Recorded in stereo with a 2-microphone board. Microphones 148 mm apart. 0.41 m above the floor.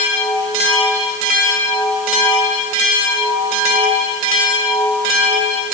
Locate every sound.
Only background noise.